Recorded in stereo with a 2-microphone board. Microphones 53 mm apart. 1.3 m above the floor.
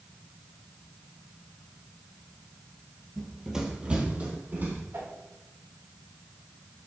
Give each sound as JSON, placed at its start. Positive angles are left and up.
{"t": 3.2, "sound": "running footsteps", "side_deg": 0, "distance_m": 1.5}
{"t": 4.9, "sound": "a whoosh", "side_deg": -85, "distance_m": 3.0}